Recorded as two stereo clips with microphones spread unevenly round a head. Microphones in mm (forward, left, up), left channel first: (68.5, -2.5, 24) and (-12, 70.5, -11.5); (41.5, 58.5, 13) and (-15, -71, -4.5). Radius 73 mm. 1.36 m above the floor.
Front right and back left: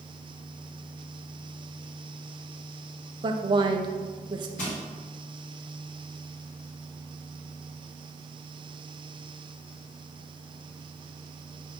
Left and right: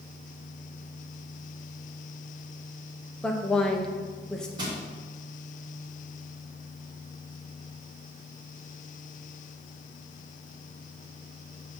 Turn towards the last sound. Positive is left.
turn(degrees=-50)